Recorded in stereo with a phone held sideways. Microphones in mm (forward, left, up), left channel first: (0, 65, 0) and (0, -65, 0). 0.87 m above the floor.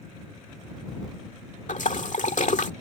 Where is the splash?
70° left (ahead or behind).